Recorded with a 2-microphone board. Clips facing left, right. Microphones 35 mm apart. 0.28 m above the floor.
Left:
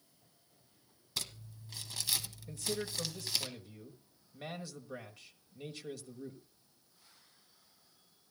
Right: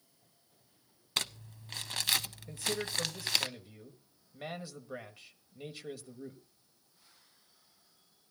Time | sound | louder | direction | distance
1.2 | crumpling | right 6 dB | 60° right (ahead or behind) | 0.6 m
2.5 | a man speaking | right 2 dB | 20° right (ahead or behind) | 1.3 m